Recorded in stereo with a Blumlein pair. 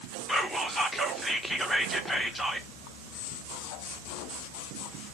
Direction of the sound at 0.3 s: 5° left.